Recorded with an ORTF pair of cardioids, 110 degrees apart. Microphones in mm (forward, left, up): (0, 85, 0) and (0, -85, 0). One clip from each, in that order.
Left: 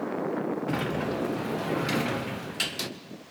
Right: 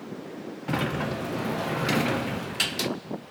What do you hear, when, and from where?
0.7 s a sliding door: 15° right, 1.0 m